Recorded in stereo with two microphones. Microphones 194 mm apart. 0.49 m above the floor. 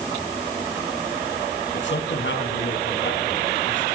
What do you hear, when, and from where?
1.7 s a man speaking: 75° left (ahead or behind), 4.5 m